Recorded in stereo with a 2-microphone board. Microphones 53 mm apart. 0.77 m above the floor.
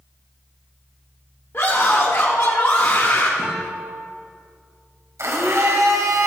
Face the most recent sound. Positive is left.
turn(degrees=-65)  # may be behind; listen again after turning